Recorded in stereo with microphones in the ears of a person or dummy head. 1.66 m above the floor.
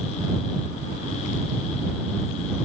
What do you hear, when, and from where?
Only background noise.